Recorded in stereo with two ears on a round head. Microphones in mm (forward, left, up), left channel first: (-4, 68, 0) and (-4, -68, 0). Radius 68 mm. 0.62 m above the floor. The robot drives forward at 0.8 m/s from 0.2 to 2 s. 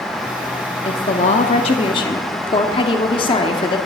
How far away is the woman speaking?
About 0.8 m.